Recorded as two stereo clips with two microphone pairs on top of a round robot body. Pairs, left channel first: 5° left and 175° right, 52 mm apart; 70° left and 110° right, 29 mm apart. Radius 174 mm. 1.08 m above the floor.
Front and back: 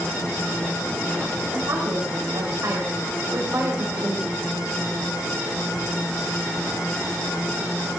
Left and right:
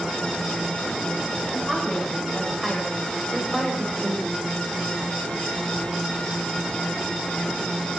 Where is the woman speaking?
160° left, 5 m.